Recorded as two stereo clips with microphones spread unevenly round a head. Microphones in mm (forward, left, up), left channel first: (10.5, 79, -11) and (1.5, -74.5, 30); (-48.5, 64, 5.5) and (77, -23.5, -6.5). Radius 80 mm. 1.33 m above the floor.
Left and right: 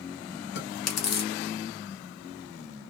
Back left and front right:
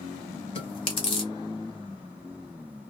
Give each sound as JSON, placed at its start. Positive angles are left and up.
{"t": 0.6, "sound": "chewing", "azimuth_deg": 85, "distance_m": 0.9}